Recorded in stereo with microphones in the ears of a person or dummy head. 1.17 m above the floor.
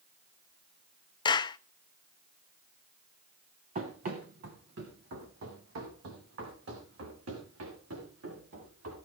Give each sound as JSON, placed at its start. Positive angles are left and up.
{"t": 1.2, "sound": "a clap", "side_deg": 25, "distance_m": 0.5}
{"t": 3.8, "sound": "running footsteps", "side_deg": -40, "distance_m": 2.5}